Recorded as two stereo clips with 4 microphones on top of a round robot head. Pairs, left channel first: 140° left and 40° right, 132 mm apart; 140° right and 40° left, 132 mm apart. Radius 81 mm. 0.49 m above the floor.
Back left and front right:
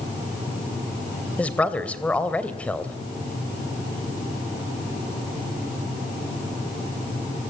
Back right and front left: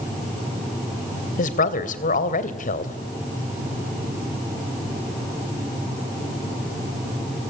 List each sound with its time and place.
1.4 s a woman speaking: 140° right, 3 m